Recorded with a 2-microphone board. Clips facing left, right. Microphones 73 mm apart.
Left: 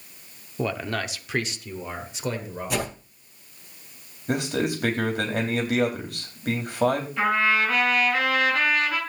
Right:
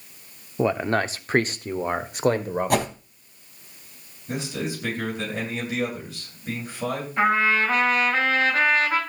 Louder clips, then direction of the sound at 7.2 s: Right 4 dB; 30° right (ahead or behind).